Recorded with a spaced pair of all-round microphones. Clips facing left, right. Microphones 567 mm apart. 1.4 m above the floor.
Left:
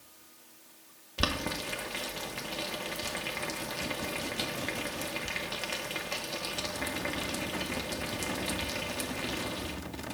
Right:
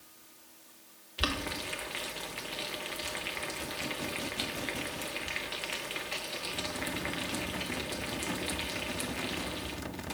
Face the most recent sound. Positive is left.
turn(degrees=65)  # may be behind; listen again after turning